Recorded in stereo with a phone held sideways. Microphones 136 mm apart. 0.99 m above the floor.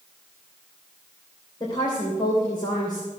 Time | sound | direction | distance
1.6 | a woman speaking | 30° left (ahead or behind) | 3 m